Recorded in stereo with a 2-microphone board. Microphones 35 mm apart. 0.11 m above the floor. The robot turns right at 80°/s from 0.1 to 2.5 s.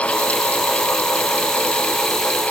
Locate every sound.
Only background noise.